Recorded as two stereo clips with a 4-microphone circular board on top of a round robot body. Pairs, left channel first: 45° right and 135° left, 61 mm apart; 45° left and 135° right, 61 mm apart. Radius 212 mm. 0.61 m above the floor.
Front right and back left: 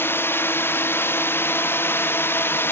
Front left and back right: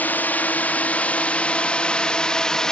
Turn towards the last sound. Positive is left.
turn(degrees=-30)